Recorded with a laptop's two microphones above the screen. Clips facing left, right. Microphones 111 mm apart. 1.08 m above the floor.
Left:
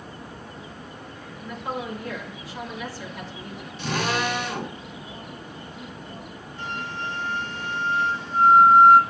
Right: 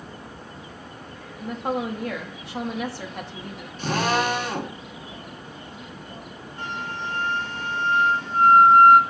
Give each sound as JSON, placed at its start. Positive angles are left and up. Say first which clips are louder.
{"t": 1.4, "sound": "a woman speaking", "louder": "right 5 dB", "side_deg": -65, "distance_m": 2.0}
{"t": 3.8, "sound": "a drill", "louder": "right 3 dB", "side_deg": -45, "distance_m": 2.0}
{"t": 6.6, "sound": "a flute", "louder": "right 1 dB", "side_deg": -50, "distance_m": 2.5}